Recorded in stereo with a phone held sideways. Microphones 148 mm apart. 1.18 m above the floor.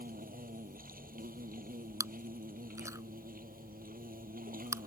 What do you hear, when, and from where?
0.0 s an insect: 85° right
2.0 s chewing: 20° right (ahead or behind)